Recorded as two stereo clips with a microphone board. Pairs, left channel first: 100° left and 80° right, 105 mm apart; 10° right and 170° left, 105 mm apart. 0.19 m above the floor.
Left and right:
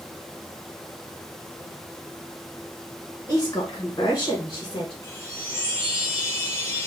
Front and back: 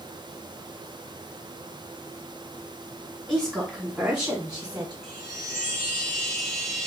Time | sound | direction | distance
3.3 | a woman speaking | 90° left | 1.5 m
5.0 | a chime | 85° left | 1.3 m